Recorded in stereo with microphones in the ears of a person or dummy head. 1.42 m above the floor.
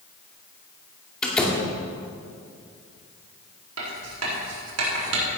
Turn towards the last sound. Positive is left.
turn(degrees=-85)